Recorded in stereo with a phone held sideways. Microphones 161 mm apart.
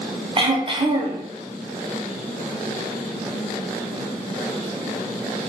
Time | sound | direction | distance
0.4 | throat clearing | 35° right (ahead or behind) | 0.7 m